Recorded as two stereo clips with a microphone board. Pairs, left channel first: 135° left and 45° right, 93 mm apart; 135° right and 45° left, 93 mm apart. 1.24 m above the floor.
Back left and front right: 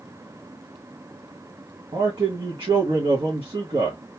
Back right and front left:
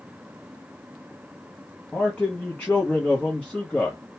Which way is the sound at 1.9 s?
60° right.